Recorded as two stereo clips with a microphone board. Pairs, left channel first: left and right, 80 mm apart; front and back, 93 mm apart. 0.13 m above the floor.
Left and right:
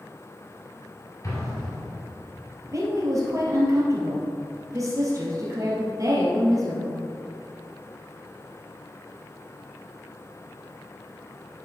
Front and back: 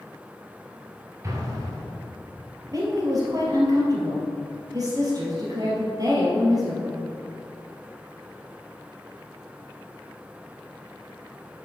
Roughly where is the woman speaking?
Behind right.